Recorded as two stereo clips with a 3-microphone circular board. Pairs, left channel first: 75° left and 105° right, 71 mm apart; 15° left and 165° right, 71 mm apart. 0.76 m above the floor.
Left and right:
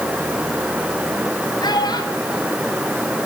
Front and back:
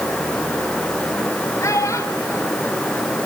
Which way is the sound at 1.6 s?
60° left.